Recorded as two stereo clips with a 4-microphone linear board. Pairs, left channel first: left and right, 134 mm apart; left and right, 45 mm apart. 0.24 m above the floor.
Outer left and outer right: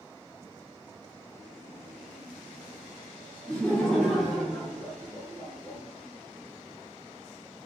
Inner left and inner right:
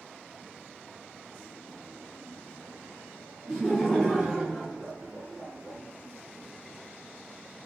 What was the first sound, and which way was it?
Laughter, 10° left (ahead or behind).